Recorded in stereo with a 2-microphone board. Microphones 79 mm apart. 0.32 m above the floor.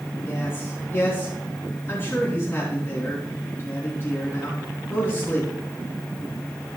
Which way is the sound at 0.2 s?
30° left (ahead or behind).